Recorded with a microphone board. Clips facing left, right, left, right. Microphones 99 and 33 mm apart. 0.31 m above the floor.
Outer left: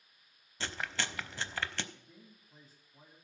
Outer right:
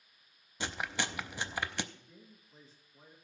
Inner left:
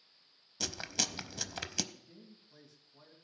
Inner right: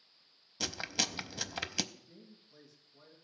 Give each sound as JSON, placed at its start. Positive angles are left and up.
{"t": 0.6, "sound": "chewing", "side_deg": -15, "distance_m": 0.6}
{"t": 1.9, "sound": "a man speaking", "side_deg": 50, "distance_m": 2.5}